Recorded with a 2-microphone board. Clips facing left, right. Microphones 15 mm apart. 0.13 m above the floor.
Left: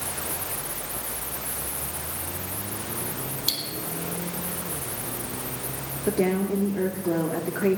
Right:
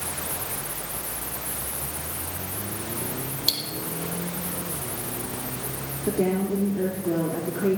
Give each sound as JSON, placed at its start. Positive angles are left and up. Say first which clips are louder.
{"t": 3.5, "sound": "cutlery clinking", "louder": "right 3 dB", "side_deg": -10, "distance_m": 2.0}
{"t": 6.1, "sound": "a woman speaking", "louder": "even", "side_deg": 50, "distance_m": 1.8}